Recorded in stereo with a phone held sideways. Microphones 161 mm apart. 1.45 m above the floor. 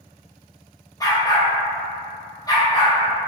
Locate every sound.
1.0 s a dog barking: 20° left (ahead or behind), 1.0 m